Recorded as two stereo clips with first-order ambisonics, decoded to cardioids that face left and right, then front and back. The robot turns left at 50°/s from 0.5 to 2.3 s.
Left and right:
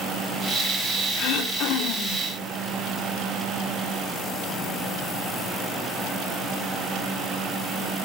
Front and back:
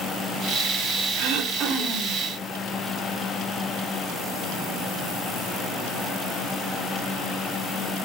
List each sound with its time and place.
1.2 s throat clearing: 150° left, 3 m; by 2.2 s 95° left, 3 m